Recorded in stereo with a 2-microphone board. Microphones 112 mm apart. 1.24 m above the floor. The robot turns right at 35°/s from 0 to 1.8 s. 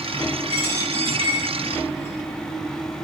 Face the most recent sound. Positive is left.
turn(degrees=-60)  # may be behind; listen again after turning